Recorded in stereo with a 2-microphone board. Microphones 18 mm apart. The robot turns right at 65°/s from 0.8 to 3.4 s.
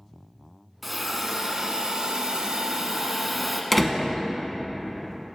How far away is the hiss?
About 0.7 m.